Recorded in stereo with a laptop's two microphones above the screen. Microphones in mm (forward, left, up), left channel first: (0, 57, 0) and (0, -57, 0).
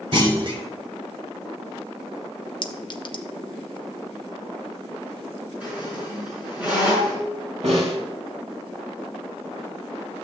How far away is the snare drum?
About 3.5 m.